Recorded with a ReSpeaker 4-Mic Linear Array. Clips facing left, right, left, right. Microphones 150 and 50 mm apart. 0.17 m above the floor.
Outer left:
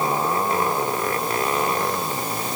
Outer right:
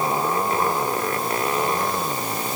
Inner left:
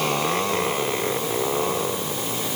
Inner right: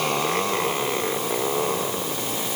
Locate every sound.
Only background noise.